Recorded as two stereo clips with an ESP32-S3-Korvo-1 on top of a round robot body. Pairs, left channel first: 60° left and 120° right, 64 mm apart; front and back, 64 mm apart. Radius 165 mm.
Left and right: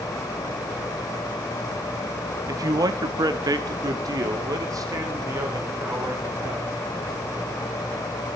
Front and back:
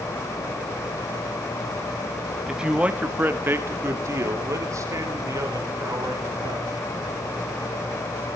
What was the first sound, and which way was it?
A man speaking, 95° right.